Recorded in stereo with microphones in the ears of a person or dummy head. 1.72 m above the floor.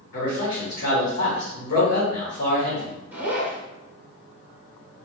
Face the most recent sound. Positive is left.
turn(degrees=-15)  # may be behind; listen again after turning